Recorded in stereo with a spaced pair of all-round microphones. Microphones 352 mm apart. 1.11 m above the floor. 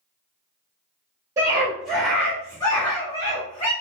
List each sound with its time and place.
1.4 s a scream: 10° right (ahead or behind), 1.5 m; by 3.7 s 20° left (ahead or behind), 2 m